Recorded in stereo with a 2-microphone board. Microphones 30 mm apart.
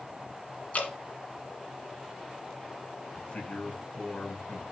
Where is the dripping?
55° left (ahead or behind), 2.5 m.